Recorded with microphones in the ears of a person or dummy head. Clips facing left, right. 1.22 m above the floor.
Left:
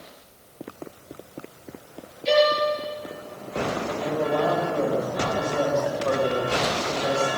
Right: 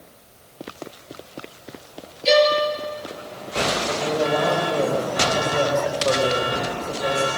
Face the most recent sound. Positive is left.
turn(degrees=-35)  # may be behind; listen again after turning